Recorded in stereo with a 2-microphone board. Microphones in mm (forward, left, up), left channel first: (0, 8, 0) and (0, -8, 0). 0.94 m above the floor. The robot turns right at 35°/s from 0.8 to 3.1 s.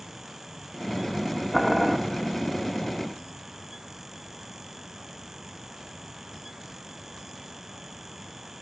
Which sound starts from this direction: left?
Boiling, at 1.5 s.